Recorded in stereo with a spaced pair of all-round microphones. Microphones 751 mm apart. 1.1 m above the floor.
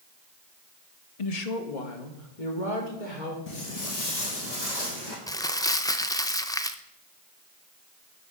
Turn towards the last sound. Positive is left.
turn(degrees=5)  # may be behind; listen again after turning